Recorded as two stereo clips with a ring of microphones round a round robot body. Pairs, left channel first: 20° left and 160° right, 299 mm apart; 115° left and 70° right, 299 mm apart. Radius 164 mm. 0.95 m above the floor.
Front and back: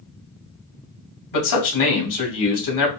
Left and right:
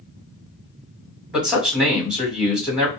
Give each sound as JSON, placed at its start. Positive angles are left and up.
{"t": 1.3, "sound": "a man speaking", "azimuth_deg": 20, "distance_m": 1.8}